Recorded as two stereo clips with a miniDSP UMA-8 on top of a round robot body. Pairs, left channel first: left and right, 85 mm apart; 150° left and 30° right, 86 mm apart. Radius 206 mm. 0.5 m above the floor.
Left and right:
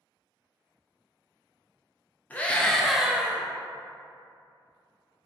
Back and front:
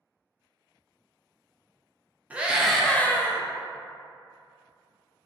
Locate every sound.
2.3 s a scream: 30° left, 0.7 m; by 3.4 s 160° right, 0.8 m